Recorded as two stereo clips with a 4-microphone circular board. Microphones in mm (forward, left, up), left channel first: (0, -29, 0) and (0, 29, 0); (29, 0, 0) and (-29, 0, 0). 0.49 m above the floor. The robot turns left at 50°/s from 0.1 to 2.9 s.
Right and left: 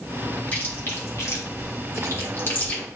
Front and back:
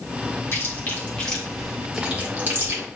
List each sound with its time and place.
0.5 s chewing: 30° right, 3 m; by 2.8 s 145° right, 3 m